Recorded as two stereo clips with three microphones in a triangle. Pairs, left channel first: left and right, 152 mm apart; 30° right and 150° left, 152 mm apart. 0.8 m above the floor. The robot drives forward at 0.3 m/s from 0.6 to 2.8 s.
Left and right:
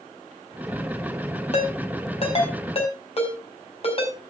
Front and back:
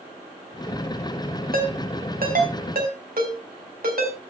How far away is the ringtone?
About 4 m.